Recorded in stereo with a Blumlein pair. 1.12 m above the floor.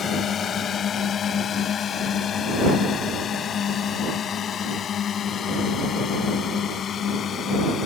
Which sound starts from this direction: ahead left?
A drone, at 0.0 s.